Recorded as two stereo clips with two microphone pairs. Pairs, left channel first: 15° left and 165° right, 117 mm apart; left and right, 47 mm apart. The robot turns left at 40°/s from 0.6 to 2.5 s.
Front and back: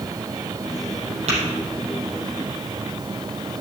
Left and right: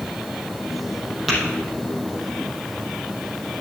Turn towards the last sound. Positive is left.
turn(degrees=130)